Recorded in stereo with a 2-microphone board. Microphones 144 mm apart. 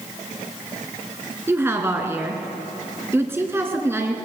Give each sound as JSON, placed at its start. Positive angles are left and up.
{"t": 1.5, "sound": "a woman speaking", "side_deg": -20, "distance_m": 1.8}